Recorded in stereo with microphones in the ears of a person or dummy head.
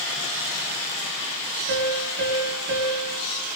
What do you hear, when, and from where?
1.7 s a piano: 85° right, 8.5 m